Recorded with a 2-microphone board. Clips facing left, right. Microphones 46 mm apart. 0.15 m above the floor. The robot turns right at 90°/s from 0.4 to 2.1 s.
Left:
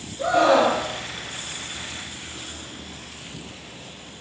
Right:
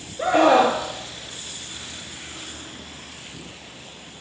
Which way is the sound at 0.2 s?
50° right.